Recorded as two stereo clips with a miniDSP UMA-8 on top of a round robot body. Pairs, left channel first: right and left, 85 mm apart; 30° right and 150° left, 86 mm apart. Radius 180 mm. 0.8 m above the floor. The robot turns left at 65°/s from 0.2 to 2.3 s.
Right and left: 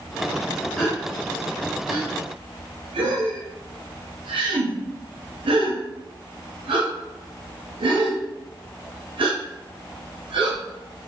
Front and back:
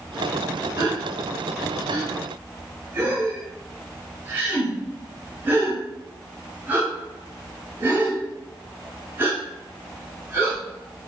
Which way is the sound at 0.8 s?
175° right.